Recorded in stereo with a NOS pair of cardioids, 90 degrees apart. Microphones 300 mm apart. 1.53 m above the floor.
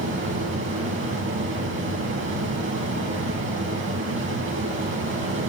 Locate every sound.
0.0 s a fan: 45° right, 2 m